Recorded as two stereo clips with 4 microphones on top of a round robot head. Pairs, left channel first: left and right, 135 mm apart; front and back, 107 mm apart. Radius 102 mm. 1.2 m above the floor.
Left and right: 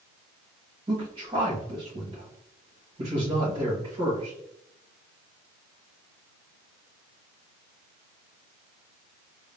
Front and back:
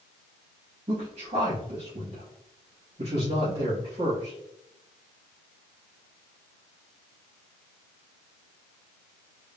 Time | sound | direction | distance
0.9 | a man speaking | 140° right | 1.5 m